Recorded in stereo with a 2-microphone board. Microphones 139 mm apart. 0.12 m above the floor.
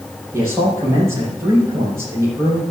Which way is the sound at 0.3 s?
20° right (ahead or behind).